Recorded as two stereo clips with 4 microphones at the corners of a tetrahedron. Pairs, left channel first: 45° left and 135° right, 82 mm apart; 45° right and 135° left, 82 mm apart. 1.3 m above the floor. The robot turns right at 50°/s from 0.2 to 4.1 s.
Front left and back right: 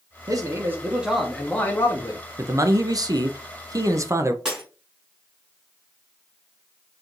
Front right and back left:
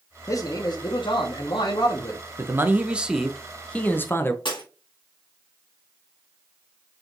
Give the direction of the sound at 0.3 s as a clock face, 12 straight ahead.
3 o'clock.